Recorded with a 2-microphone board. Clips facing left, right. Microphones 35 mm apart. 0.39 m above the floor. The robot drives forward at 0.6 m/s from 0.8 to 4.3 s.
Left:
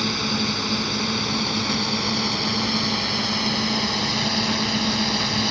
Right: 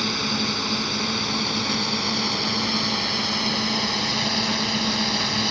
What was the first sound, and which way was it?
A drone, centre (ahead or behind).